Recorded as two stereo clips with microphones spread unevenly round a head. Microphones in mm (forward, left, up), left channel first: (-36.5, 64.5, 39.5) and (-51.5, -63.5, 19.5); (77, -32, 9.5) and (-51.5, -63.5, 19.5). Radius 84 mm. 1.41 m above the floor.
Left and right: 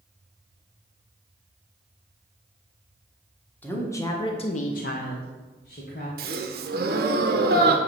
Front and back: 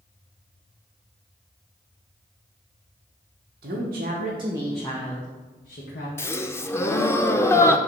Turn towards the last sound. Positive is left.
turn(degrees=-60)